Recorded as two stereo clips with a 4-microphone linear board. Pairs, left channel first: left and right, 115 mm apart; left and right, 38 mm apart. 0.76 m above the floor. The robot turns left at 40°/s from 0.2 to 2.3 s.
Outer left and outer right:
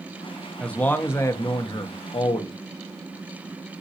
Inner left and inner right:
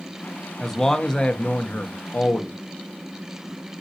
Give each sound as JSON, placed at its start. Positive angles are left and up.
{"t": 0.6, "sound": "a man speaking", "azimuth_deg": 170, "distance_m": 0.6}